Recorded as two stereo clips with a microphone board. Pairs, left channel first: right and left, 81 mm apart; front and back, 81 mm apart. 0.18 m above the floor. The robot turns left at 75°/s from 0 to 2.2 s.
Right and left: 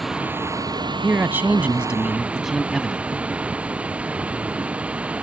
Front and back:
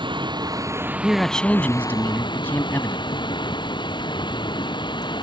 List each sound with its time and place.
0.0 s running water: straight behind; by 5.2 s 15° left
1.0 s a man speaking: 95° left; by 3.1 s 5° left